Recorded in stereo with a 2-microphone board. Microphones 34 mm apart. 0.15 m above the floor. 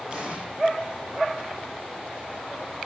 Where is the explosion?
30° right (ahead or behind), 6.5 m.